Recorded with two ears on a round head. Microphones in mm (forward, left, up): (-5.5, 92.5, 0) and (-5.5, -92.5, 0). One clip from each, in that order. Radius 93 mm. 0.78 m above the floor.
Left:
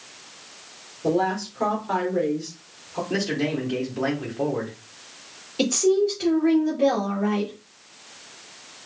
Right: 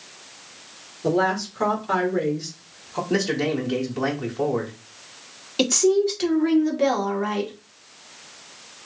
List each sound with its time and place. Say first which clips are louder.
1.0 s a woman speaking: right 2 dB; 30° right (ahead or behind), 2.5 m
3.1 s a man speaking: right 3 dB; 20° right (ahead or behind), 1.6 m
5.6 s a woman speaking: right 1 dB; 55° right (ahead or behind), 2 m